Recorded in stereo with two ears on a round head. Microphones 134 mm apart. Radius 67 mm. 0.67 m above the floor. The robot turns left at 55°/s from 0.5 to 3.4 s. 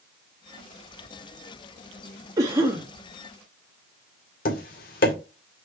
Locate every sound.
2.4 s a cough: 25° right (ahead or behind), 1.1 m; by 2.9 s 10° right (ahead or behind), 1.1 m
4.5 s tapping: 65° left (ahead or behind), 1.9 m